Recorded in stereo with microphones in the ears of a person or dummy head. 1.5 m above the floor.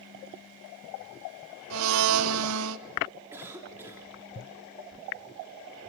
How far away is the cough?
About 4 m.